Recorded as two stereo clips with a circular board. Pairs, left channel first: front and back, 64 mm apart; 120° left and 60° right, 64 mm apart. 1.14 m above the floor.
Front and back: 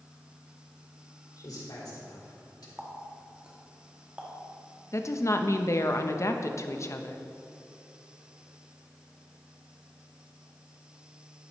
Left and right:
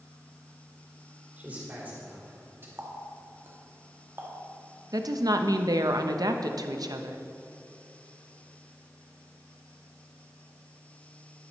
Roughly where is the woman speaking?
Ahead right.